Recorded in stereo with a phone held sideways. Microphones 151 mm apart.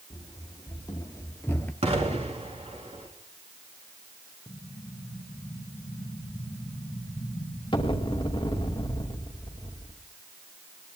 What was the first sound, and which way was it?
Running footsteps, 30° left (ahead or behind).